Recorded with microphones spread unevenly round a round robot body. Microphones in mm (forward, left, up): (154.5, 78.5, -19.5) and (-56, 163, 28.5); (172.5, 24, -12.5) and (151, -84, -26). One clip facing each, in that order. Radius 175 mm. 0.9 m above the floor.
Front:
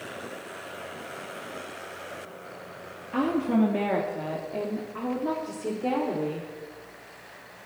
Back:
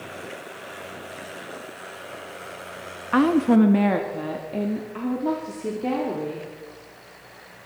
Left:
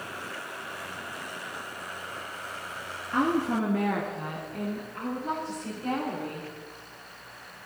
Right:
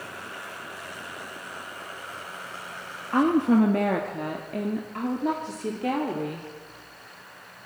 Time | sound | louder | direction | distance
3.1 | a woman speaking | back 7 dB, right 6 dB | 160° right | 1.0 m